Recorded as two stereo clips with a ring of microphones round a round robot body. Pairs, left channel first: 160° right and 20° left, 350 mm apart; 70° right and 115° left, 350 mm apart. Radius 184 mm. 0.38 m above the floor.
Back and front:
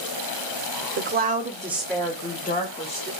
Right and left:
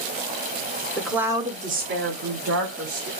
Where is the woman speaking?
15° left, 1.3 m; by 3.1 s 150° left, 2.0 m.